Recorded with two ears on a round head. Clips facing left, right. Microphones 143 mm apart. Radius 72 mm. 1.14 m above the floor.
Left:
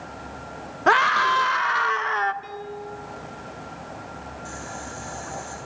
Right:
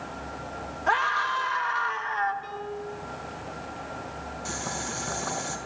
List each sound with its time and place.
0.9 s a scream: 70° left (ahead or behind), 1.0 m
2.4 s a piano: 15° left (ahead or behind), 4 m
4.5 s boiling: 80° right, 5.5 m